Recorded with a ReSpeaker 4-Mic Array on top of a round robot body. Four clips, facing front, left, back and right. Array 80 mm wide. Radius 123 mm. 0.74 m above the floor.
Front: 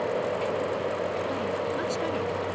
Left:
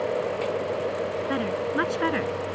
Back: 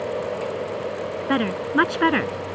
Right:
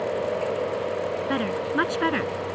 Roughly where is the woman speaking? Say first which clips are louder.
Right 1 dB, back 6 dB; behind.